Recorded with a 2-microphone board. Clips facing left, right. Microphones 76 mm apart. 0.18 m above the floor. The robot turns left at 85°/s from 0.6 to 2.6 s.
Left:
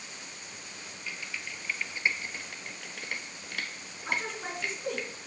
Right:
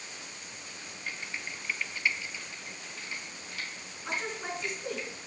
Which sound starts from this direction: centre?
A woman speaking, at 4.0 s.